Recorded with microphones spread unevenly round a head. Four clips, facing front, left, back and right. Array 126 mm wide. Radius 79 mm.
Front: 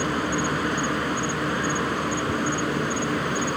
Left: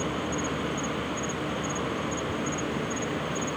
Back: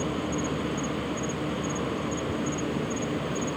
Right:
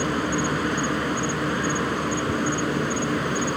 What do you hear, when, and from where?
0.0 s an insect: 5° right